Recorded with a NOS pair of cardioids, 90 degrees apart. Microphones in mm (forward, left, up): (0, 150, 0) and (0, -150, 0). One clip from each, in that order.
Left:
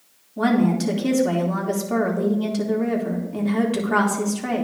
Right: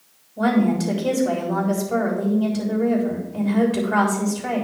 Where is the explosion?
I don't hear an explosion.